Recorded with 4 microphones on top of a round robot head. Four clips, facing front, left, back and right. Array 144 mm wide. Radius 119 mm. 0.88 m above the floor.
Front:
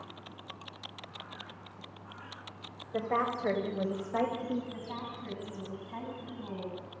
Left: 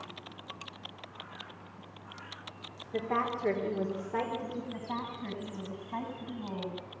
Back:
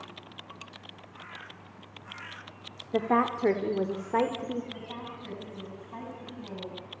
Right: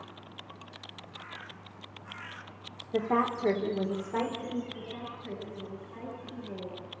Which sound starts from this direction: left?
A woman speaking, at 4.7 s.